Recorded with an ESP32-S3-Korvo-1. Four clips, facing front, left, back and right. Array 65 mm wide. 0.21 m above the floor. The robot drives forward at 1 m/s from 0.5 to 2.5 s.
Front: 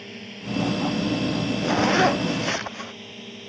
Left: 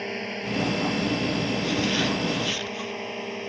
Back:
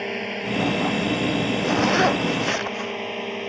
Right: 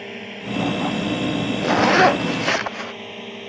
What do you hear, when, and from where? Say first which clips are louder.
0.0 s a drone: left 1 dB, back 10 dB; 165° left; by 3.5 s 170° left
1.6 s a zipper: right 16 dB, even; 85° right; by 2.9 s 90° right